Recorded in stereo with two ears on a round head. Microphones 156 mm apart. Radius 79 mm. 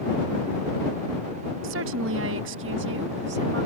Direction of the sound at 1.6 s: 85° right.